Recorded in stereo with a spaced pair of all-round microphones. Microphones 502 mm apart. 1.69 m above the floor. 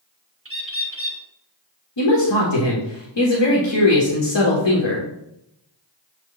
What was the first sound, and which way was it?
A bird, 25° right (ahead or behind).